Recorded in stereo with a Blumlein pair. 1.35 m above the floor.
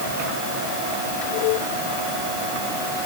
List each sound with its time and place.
Only background noise.